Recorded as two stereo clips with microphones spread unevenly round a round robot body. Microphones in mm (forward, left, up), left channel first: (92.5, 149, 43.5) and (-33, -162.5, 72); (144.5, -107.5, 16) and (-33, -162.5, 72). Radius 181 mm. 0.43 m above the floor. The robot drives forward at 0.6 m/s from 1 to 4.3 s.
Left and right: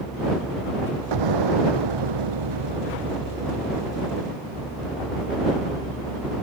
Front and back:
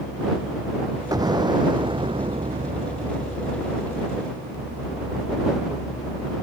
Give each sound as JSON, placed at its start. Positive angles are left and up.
{"t": 1.1, "sound": "an explosion", "azimuth_deg": -95}